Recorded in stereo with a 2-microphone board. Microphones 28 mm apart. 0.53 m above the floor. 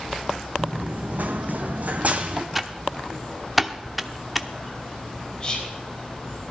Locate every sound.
0.6 s running footsteps: 55° right (ahead or behind), 1.7 m; by 2.5 s 45° right (ahead or behind), 1.5 m
2.5 s typing on a keyboard: 5° right (ahead or behind), 0.7 m
5.4 s whispering: 30° left (ahead or behind), 2.5 m